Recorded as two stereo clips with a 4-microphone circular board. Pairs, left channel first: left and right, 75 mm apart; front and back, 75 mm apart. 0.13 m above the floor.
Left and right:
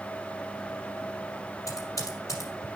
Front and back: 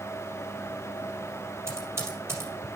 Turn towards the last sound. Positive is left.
turn(degrees=130)